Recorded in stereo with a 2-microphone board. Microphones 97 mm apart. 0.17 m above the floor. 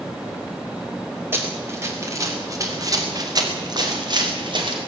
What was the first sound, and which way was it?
Running footsteps, 25° right (ahead or behind).